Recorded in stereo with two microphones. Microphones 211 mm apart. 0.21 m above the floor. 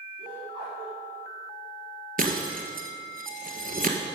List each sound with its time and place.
0.2 s laughter: 20° right (ahead or behind), 3.5 m
2.2 s breaking glass: 40° right (ahead or behind), 1.2 m